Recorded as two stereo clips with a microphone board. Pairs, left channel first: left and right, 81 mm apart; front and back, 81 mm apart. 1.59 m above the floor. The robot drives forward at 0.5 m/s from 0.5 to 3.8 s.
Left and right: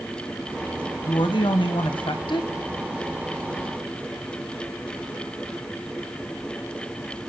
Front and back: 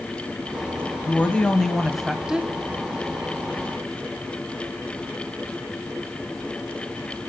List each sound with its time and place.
1.1 s a woman speaking: 70° left, 1.3 m; by 2.5 s 105° left, 1.3 m